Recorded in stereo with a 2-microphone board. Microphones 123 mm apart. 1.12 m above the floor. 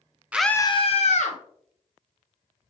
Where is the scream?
10° right (ahead or behind), 0.5 m; by 1.4 s 60° left (ahead or behind), 1.1 m.